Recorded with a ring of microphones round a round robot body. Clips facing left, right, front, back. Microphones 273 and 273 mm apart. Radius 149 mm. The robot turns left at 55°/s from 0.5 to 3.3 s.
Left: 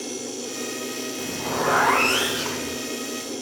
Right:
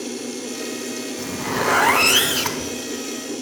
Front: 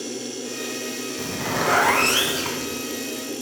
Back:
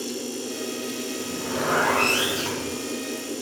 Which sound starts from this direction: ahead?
A zipper, at 1.2 s.